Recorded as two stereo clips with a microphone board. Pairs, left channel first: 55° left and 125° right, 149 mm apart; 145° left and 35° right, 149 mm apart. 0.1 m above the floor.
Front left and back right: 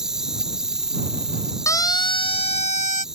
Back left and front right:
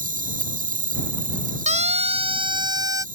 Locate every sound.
0.0 s an insect: 40° right
1.7 s a siren: 10° right; by 3.0 s 30° left